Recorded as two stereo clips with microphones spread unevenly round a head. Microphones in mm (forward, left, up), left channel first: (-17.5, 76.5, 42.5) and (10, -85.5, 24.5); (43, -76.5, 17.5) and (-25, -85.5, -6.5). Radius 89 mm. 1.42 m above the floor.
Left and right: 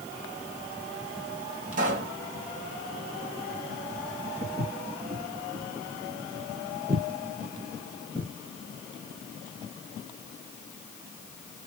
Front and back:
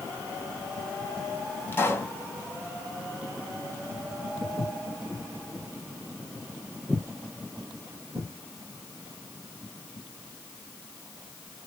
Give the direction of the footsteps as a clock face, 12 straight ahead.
1 o'clock.